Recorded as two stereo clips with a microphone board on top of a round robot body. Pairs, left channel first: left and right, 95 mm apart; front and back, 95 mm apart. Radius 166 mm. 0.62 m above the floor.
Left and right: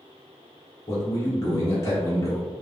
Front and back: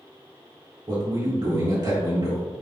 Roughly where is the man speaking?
Behind left.